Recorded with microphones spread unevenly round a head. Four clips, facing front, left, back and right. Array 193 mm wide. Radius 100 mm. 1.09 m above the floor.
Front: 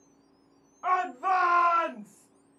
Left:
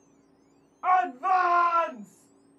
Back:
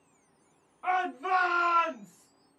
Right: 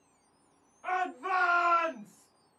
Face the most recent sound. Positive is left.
turn(degrees=30)